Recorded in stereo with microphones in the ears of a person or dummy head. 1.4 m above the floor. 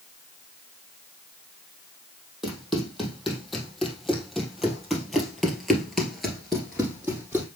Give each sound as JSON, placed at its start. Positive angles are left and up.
{"t": 2.4, "sound": "running footsteps", "side_deg": 0, "distance_m": 3.5}